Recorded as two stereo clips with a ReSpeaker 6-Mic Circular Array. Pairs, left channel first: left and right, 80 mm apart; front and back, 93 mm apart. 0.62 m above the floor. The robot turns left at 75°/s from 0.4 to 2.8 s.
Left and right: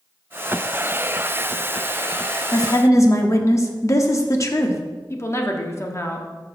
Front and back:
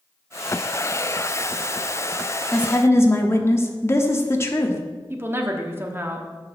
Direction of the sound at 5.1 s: 125° left.